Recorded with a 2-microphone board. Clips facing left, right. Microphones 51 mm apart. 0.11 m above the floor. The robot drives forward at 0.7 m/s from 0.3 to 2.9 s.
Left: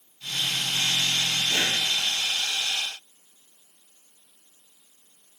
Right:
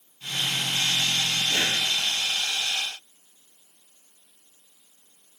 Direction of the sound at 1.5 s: 20° left (ahead or behind).